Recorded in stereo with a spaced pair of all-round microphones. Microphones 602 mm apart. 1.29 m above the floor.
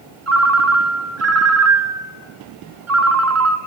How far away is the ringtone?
About 0.6 m.